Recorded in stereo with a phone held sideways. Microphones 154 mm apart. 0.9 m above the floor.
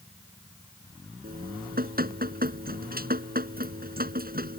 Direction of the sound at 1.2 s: 75° right (ahead or behind).